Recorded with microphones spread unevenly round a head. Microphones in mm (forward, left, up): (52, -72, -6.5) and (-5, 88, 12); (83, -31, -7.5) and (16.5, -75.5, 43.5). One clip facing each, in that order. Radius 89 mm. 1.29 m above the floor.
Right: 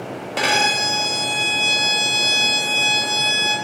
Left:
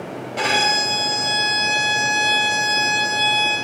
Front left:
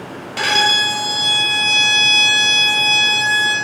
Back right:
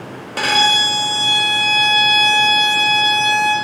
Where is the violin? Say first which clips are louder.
Even, back right 1 dB; 105° right, 2.5 m.